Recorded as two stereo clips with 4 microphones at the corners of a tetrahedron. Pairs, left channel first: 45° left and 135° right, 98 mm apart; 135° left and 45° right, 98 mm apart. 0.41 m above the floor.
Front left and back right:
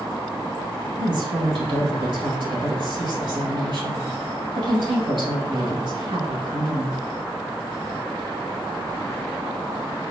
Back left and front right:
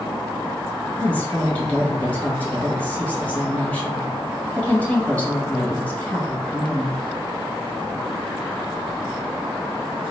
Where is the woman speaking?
155° right, 1.7 m.